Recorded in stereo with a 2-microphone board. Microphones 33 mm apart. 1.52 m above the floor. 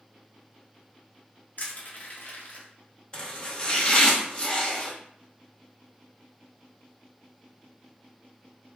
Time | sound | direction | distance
1.6 | crushing | 55° left (ahead or behind) | 1.1 m
3.1 | chopping | 30° left (ahead or behind) | 1.0 m